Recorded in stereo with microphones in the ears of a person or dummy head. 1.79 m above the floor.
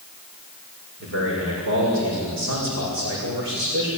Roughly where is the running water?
I don't hear running water.